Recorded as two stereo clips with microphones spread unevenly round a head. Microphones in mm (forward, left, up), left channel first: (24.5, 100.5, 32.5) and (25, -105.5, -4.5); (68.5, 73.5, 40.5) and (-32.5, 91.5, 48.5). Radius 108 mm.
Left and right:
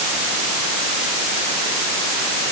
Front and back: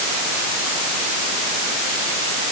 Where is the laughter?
I don't hear laughter.